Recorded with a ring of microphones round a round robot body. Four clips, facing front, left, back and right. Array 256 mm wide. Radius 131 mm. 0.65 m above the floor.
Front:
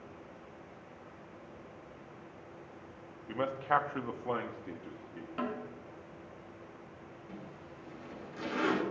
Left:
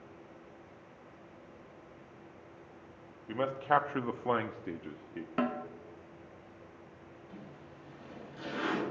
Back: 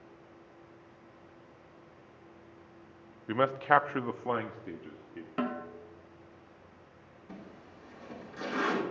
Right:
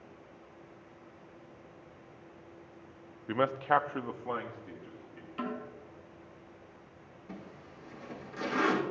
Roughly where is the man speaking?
Behind right.